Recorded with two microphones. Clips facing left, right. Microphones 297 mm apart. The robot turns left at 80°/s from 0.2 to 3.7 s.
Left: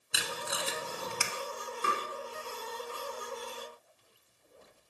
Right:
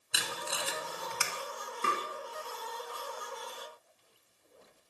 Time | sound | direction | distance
0.1 | tape being pulled | centre (ahead or behind) | 0.7 m
1.8 | tapping | 30° right (ahead or behind) | 2 m